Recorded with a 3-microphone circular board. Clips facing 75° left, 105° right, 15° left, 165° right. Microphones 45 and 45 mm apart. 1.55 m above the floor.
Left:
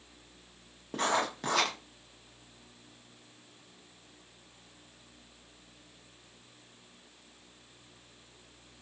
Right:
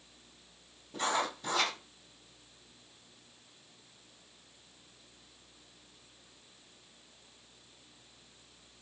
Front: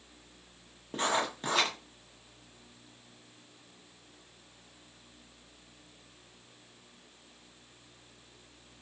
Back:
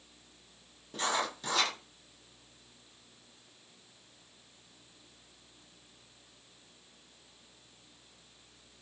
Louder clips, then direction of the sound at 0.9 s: Left 3 dB, front 2 dB; 70° left.